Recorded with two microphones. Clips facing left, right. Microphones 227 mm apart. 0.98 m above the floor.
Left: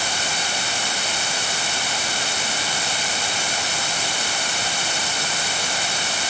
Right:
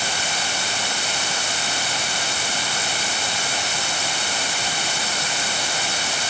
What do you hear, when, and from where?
Only background noise.